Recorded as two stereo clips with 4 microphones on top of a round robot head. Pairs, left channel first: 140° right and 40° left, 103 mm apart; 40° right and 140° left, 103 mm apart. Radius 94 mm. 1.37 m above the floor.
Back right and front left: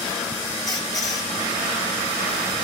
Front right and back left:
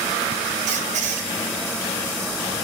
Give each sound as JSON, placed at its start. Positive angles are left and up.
{"t": 0.7, "sound": "a squeak", "azimuth_deg": 160, "distance_m": 3.0}